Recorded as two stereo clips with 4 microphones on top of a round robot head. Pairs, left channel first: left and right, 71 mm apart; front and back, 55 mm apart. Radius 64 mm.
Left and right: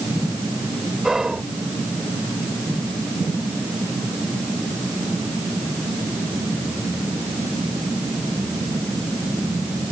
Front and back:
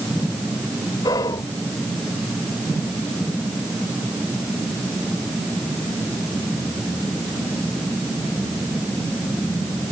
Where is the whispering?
5° right.